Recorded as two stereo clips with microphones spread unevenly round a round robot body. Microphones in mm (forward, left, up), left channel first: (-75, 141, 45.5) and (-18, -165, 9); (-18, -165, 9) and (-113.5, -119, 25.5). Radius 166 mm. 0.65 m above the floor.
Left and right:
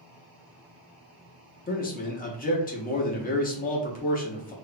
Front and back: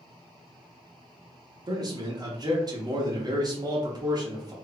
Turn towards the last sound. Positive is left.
turn(degrees=145)